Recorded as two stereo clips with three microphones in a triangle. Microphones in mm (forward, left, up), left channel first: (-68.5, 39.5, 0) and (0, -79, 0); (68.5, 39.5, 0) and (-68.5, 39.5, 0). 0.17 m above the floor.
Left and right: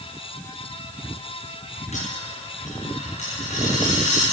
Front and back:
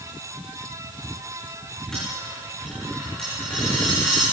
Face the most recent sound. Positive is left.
turn(degrees=85)